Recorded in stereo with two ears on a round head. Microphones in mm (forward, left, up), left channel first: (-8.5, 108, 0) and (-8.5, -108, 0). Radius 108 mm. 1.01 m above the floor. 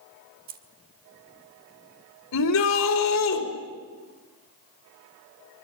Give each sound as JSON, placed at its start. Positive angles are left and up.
{"t": 0.5, "sound": "keys jangling", "side_deg": -40, "distance_m": 1.4}
{"t": 2.3, "sound": "a shout", "side_deg": 80, "distance_m": 4.5}